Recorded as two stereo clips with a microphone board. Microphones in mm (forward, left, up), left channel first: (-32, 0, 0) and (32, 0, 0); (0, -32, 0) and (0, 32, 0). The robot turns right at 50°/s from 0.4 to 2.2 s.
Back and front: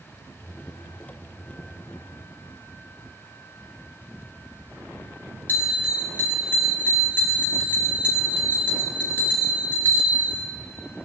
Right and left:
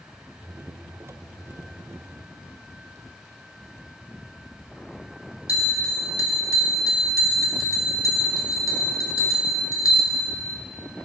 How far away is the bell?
About 1.7 m.